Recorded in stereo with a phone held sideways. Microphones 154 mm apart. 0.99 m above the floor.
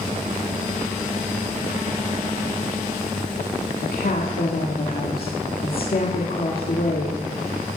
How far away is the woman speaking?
About 2.0 m.